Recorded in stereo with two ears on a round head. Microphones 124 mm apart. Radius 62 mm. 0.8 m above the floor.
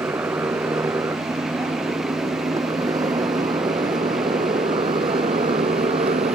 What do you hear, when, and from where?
0.0 s a motorcycle: 15° right (ahead or behind); by 6.4 s 45° right (ahead or behind)